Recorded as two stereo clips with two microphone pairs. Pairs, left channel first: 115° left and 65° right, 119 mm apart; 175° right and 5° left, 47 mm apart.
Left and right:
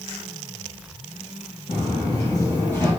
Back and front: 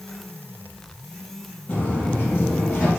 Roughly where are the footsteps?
Behind left.